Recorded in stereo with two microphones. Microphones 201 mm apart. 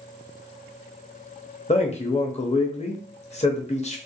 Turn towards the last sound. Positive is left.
turn(degrees=35)  # may be behind; listen again after turning